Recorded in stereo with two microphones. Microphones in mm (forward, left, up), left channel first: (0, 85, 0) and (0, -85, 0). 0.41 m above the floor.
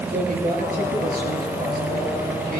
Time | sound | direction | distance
0.1 | a man speaking | 60° right (ahead or behind) | 6.5 m